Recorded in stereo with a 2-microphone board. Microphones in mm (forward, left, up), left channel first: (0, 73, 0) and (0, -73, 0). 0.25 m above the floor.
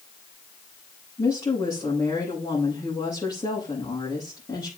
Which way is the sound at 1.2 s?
30° left (ahead or behind).